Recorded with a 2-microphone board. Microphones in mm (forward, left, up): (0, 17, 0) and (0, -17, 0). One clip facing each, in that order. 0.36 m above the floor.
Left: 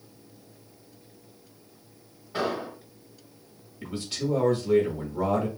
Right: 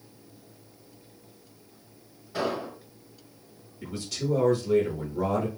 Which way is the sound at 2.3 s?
25° left (ahead or behind).